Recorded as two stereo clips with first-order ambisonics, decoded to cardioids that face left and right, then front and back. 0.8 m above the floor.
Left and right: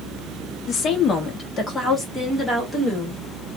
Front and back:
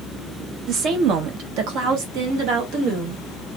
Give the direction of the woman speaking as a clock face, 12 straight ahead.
7 o'clock.